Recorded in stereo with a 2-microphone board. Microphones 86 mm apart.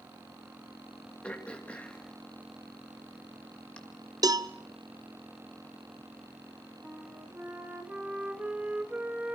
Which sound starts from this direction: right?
A cowbell, at 4.2 s.